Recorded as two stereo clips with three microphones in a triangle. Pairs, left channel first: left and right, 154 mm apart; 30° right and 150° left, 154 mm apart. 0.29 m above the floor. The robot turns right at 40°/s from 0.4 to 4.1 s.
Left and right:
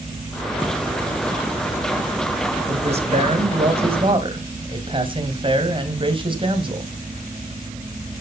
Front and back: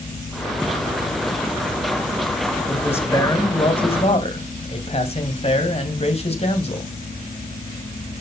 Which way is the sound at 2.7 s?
110° right.